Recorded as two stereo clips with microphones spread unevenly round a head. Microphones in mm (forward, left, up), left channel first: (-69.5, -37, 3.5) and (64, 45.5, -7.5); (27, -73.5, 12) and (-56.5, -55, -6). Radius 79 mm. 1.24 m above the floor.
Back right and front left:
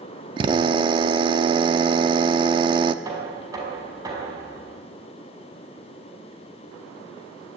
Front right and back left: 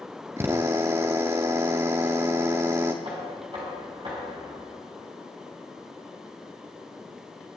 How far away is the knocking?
About 5.5 m.